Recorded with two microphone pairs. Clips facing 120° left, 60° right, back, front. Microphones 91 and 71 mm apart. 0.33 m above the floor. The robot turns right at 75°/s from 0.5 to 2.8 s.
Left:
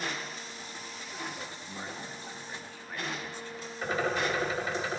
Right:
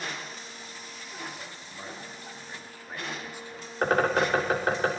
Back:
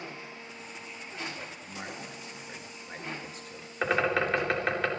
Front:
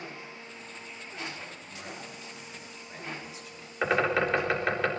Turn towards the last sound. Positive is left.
turn(degrees=-90)